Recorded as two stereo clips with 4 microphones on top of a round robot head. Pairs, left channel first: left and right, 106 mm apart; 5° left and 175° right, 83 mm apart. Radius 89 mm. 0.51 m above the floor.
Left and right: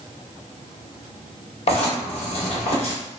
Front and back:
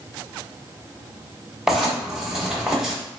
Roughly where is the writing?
Left.